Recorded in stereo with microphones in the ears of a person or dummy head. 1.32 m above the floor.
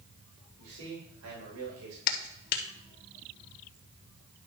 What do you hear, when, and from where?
0.6 s a man speaking: 70° right (ahead or behind), 3.5 m; by 2.0 s 80° right, 3 m
2.1 s a clap: 55° left (ahead or behind), 1.5 m